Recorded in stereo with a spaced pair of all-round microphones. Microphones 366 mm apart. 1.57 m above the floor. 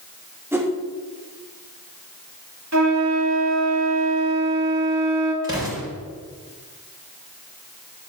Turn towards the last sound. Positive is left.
turn(degrees=-10)  # may be behind; listen again after turning